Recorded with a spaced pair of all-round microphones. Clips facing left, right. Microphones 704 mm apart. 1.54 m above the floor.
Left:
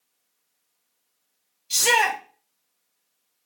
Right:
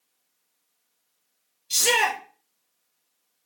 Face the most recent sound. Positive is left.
turn(degrees=25)  # may be behind; listen again after turning